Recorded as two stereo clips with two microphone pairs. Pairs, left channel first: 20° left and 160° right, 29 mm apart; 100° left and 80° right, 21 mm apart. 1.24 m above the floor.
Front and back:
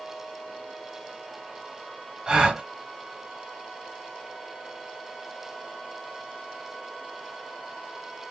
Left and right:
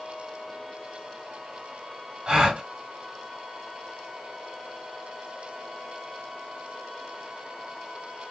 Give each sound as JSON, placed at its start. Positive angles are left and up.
{"t": 2.3, "sound": "a gasp", "azimuth_deg": -110, "distance_m": 1.3}